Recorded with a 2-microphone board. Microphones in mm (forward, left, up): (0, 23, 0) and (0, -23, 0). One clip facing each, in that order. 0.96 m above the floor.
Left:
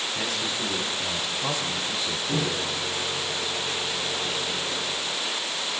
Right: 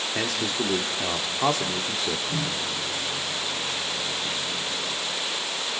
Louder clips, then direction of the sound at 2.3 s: Left 2 dB; 75° left (ahead or behind).